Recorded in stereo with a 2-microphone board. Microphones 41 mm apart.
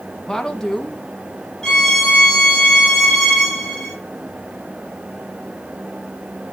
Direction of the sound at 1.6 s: 15° left (ahead or behind).